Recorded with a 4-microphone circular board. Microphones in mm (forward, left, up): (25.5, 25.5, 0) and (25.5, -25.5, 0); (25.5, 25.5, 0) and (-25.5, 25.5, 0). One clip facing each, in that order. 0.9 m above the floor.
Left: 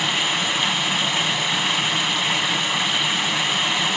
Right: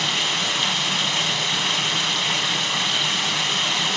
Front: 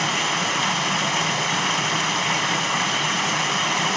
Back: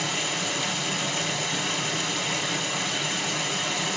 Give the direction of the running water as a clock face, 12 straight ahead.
12 o'clock.